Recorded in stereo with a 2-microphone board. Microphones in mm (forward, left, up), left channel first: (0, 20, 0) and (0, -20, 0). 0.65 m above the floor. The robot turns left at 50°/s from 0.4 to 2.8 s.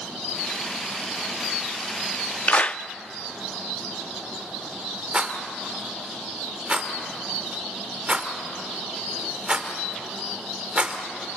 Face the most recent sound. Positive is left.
turn(degrees=-25)  # may be behind; listen again after turning